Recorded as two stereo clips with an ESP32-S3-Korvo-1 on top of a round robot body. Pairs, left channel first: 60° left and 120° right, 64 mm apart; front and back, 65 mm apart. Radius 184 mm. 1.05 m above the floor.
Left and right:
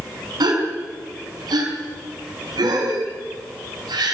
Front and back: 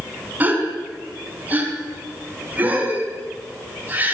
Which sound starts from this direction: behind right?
A gasp, at 0.4 s.